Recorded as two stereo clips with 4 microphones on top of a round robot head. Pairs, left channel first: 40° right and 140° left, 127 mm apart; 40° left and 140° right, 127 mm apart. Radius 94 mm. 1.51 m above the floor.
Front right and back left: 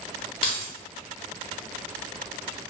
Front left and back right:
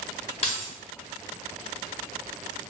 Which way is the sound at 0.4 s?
Straight ahead.